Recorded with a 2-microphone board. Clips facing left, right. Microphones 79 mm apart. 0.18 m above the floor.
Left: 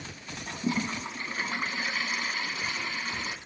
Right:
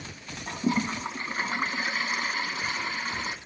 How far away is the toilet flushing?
About 0.5 m.